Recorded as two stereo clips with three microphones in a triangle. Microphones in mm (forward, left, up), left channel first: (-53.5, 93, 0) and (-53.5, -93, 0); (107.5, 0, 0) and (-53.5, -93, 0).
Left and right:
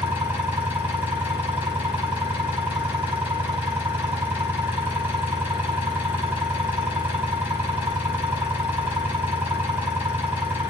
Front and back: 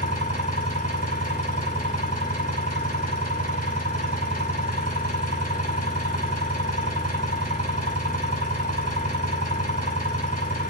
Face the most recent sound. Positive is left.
turn(degrees=-10)